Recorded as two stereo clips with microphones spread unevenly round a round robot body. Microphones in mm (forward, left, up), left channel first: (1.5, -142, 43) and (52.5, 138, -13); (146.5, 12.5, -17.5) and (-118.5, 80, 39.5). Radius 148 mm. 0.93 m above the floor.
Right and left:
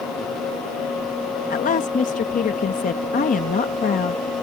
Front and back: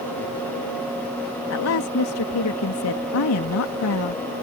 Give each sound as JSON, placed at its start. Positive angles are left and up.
{"t": 1.5, "sound": "a woman speaking", "azimuth_deg": -35}